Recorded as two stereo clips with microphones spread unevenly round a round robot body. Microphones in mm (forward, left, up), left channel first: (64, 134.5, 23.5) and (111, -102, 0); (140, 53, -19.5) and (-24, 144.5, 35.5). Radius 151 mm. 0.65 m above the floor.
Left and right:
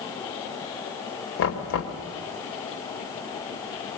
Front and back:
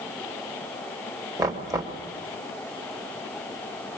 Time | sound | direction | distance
1.4 | knocking | 75° left | 1.9 m